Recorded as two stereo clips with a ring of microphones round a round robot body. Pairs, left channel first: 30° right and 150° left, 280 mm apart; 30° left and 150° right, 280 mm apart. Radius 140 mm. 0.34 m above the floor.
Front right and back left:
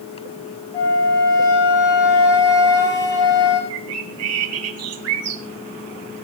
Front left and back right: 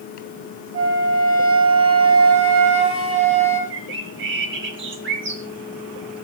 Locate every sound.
0.7 s a flute: 110° right, 4 m
3.7 s a bird: 170° left, 1.7 m